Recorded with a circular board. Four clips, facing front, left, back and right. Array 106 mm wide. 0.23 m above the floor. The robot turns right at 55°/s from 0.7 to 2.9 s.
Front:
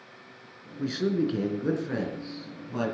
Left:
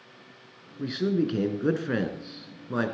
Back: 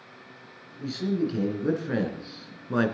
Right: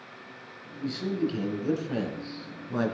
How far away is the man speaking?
About 2.5 m.